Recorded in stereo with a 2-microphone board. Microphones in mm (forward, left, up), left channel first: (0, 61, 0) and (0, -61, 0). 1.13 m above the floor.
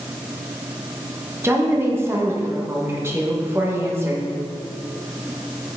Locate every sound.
1.4 s a woman speaking: 20° right (ahead or behind), 1.2 m